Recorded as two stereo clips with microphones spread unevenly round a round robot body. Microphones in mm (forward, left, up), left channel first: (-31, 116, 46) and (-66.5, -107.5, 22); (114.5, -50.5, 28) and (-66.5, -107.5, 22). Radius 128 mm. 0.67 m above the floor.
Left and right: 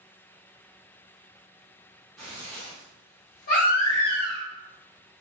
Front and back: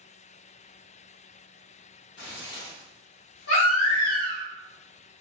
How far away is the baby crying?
About 1.1 m.